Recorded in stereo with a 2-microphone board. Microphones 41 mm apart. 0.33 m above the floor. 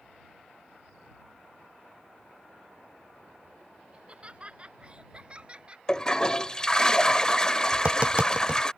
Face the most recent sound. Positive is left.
turn(degrees=-35)  # may be behind; listen again after turning